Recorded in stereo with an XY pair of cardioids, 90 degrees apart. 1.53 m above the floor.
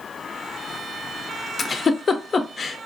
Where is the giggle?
45° left, 0.5 m.